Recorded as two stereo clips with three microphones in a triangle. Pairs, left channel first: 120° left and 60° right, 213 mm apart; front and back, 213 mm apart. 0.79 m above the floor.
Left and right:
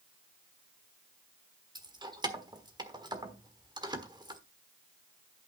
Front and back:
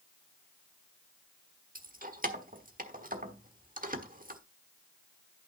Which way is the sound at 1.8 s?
130° right.